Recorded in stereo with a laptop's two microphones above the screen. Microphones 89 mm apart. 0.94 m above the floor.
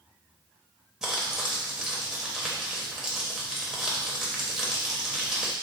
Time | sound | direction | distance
1.0 | crumpling | 5° right (ahead or behind) | 0.8 m